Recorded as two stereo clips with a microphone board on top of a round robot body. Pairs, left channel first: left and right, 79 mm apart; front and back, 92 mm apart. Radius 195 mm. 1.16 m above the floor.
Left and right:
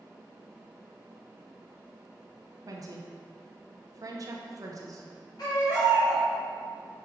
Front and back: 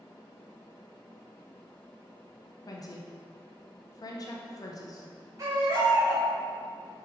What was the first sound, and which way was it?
A woman speaking, 50° right.